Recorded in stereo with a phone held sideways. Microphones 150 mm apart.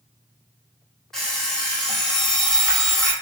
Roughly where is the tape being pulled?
I don't hear tape being pulled.